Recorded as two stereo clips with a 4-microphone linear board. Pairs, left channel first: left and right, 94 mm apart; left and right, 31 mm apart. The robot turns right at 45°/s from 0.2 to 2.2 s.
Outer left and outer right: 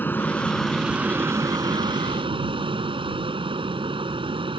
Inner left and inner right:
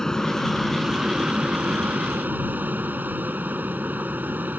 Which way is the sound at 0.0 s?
160° left.